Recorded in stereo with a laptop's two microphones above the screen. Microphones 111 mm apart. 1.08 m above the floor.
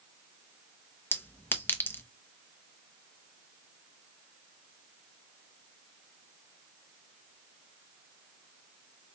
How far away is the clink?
About 0.5 m.